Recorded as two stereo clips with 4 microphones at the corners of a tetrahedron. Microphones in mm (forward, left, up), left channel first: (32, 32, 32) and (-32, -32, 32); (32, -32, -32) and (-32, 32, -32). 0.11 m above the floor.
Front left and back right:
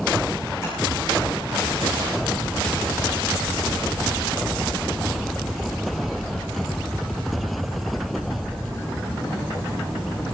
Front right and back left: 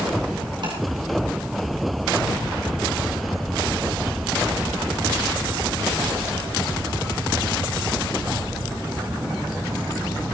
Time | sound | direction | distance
0.6 | tapping | 105° left | 7 m